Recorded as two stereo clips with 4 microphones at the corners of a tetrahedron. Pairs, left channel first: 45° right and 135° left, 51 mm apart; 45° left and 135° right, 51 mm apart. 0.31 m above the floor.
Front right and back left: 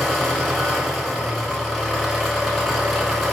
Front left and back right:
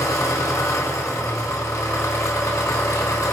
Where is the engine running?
45° left, 1.1 m.